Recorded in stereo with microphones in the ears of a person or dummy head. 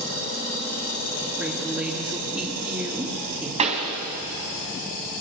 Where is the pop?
35° right (ahead or behind), 2.5 m.